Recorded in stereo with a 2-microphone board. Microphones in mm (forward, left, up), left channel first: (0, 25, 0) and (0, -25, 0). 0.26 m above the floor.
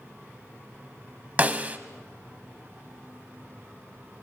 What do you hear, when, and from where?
1.4 s a snare drum: 30° right (ahead or behind), 1.1 m